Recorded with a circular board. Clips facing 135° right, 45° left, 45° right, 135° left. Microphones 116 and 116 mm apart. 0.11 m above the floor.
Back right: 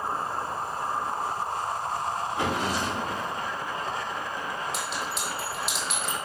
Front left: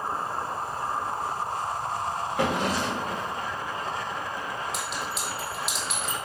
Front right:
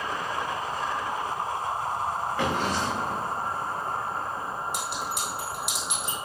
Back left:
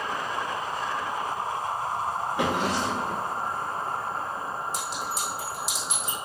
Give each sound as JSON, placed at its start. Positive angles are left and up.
{"t": 2.4, "sound": "a drawer", "azimuth_deg": 65, "distance_m": 4.0}
{"t": 4.7, "sound": "a clink", "azimuth_deg": -45, "distance_m": 2.5}